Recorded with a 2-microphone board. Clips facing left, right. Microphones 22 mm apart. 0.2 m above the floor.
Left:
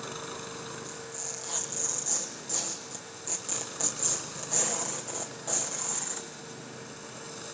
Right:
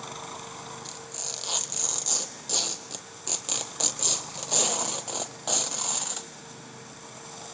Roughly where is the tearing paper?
Right.